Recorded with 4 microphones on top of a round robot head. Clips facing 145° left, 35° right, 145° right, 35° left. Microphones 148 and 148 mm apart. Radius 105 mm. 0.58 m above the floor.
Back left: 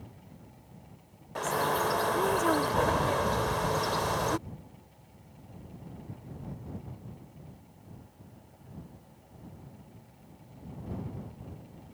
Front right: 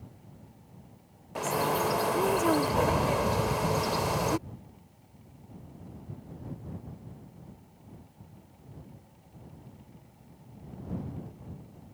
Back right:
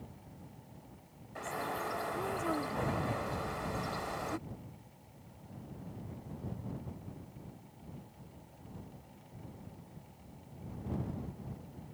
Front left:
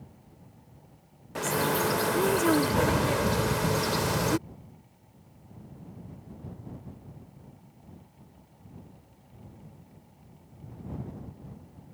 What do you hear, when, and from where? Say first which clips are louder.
1.4 s a bird: front right 1 dB, front left 11 dB; 45° left